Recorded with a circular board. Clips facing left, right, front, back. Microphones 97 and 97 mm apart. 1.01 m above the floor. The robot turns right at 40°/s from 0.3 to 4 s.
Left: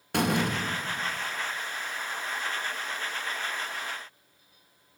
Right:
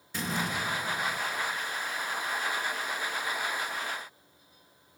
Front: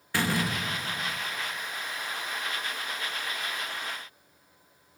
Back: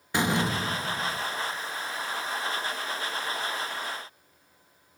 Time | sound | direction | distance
0.1 | a door slam | 110° left | 0.6 m